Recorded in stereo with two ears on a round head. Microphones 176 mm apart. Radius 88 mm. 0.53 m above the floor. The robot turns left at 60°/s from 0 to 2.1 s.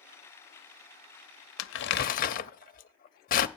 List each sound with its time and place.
1.6 s crumpling: 75° left (ahead or behind), 0.7 m; by 3.5 s 45° left (ahead or behind), 0.7 m